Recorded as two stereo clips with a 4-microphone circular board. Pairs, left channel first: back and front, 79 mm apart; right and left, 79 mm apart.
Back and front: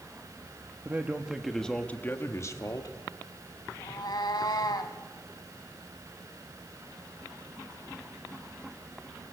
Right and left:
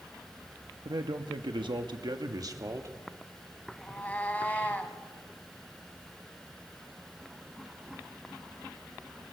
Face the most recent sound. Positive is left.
turn(degrees=-160)